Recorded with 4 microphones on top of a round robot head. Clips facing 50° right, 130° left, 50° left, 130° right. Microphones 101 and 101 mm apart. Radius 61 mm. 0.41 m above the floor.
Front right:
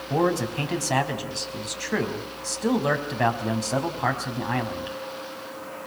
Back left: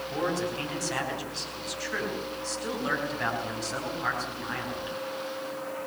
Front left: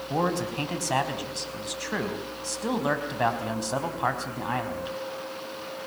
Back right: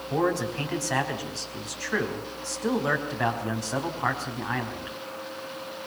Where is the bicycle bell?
I don't hear a bicycle bell.